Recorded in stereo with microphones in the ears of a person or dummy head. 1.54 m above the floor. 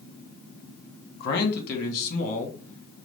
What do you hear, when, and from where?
1.2 s a man speaking: 55° left (ahead or behind), 1.4 m; by 3.1 s 35° left (ahead or behind), 2 m